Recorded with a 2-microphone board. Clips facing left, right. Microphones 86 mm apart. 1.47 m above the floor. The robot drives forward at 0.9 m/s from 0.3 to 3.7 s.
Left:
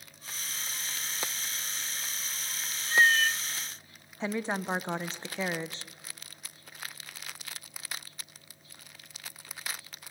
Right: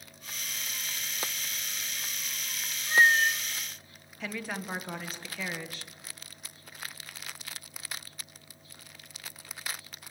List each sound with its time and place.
2.9 s a cat meowing: 20° right (ahead or behind), 0.9 m
4.2 s a woman speaking: 25° left (ahead or behind), 1.2 m